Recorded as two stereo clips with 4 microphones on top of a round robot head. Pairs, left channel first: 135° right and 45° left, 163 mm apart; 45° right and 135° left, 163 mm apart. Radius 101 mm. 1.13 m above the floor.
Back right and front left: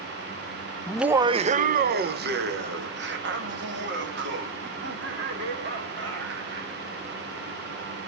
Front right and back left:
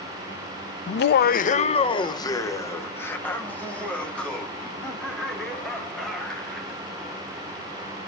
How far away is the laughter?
About 0.5 m.